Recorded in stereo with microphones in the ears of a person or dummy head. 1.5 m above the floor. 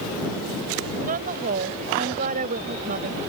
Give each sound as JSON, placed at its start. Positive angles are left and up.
{"t": 1.0, "sound": "a woman speaking", "side_deg": -50}